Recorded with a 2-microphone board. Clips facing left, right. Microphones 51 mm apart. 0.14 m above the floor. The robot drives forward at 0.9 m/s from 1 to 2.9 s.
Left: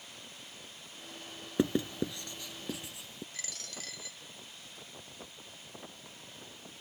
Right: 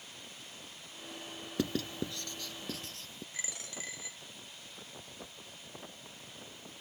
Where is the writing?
25° left (ahead or behind); by 3.2 s 15° left (ahead or behind).